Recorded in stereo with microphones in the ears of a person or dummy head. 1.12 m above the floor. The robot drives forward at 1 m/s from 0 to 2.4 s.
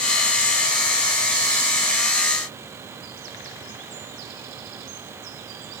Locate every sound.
Only background noise.